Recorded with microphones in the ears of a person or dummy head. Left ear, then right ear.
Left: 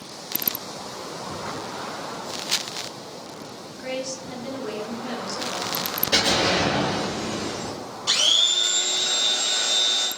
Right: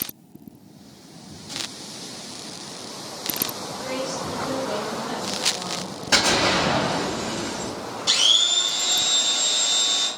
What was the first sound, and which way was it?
A woman speaking, 50° left (ahead or behind).